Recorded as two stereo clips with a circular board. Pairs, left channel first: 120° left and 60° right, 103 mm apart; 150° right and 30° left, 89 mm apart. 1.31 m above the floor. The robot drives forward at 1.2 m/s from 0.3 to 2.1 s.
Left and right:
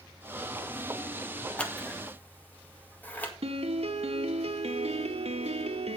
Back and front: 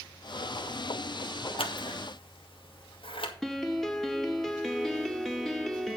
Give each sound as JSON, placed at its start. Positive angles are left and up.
{"t": 1.6, "sound": "scissors", "azimuth_deg": -160, "distance_m": 1.6}
{"t": 3.4, "sound": "a piano", "azimuth_deg": -60, "distance_m": 1.1}